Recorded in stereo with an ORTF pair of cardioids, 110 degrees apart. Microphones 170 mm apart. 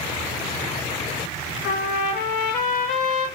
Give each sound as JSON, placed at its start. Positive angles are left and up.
{"t": 1.6, "sound": "a trumpet", "azimuth_deg": 65, "distance_m": 1.2}